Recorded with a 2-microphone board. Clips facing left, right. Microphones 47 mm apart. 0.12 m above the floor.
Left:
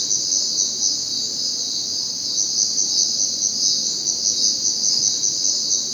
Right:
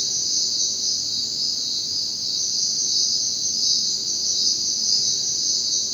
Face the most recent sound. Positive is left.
turn(degrees=85)